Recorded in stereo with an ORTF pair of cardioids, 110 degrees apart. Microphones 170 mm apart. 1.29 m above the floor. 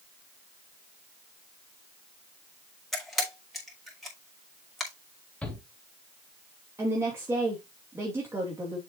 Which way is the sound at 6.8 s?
15° right.